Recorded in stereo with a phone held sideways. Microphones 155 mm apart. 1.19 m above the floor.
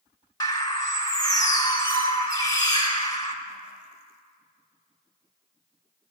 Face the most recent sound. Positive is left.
turn(degrees=25)  # may be behind; listen again after turning